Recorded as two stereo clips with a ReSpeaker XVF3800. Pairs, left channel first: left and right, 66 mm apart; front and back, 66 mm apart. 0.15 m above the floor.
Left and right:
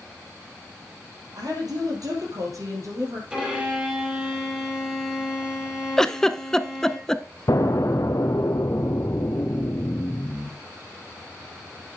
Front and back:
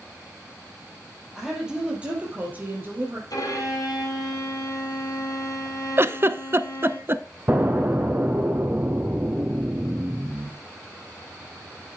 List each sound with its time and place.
1.4 s a woman speaking: 95° right, 4.5 m; by 3.2 s 130° right, 4 m
3.3 s a violin: 15° right, 4 m
6.0 s a giggle: 165° left, 0.5 m
7.5 s an explosion: 125° left, 1.1 m